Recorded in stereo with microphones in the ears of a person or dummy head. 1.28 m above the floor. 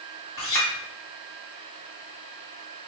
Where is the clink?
20° left (ahead or behind), 1.5 m.